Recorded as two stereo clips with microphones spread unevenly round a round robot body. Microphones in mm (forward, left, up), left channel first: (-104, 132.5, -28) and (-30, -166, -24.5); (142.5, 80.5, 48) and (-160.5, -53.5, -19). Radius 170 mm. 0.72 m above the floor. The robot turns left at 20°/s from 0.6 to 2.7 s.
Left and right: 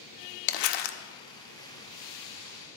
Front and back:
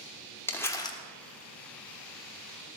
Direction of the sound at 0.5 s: 105° left.